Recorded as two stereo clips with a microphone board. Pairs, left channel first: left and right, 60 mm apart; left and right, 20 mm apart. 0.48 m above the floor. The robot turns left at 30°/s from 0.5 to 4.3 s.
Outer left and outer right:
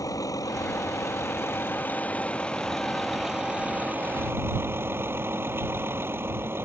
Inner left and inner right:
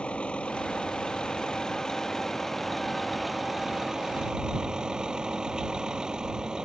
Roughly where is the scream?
I don't hear a scream.